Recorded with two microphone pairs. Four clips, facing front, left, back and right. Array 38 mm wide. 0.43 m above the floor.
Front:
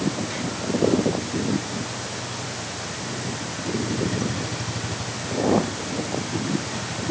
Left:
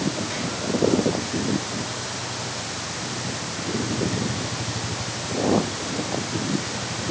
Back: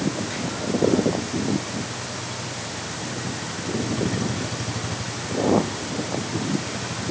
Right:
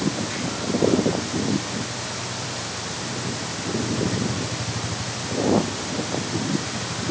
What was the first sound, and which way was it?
Only background noise.